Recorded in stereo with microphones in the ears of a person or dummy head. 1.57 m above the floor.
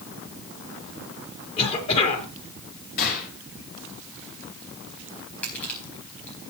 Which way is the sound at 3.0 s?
55° left (ahead or behind).